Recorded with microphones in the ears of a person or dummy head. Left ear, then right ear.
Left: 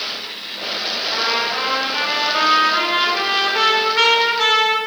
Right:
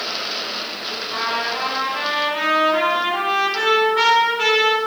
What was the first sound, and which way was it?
A trumpet, 10° right (ahead or behind).